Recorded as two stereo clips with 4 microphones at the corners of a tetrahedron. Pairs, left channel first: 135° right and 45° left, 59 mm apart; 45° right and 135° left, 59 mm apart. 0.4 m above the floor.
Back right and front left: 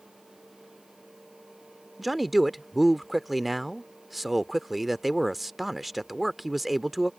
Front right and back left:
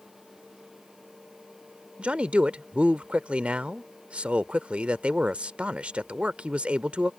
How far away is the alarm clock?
No alarm clock in this recording.